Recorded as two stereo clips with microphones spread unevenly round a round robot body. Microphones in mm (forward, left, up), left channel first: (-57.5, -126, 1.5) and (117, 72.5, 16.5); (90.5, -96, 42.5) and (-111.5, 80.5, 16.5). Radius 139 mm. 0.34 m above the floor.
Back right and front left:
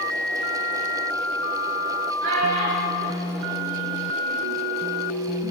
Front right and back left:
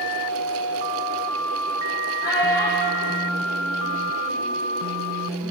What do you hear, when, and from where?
2.2 s a child speaking: 35° left, 5 m; by 4.6 s 60° left, 5 m